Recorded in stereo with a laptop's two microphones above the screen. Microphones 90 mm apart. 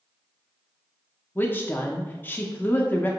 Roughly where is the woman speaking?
Left.